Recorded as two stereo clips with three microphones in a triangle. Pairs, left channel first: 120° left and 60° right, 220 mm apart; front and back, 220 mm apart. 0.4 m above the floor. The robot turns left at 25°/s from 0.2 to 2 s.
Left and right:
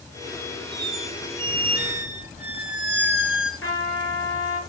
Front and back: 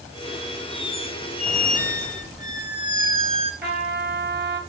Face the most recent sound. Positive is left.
turn(degrees=140)